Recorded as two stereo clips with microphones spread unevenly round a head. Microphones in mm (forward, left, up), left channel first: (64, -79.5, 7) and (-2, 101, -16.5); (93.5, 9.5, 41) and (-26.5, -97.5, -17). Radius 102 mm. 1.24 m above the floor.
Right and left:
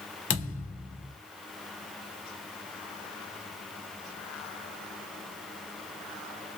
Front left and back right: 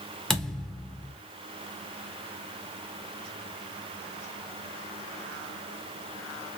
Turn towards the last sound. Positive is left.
turn(degrees=-35)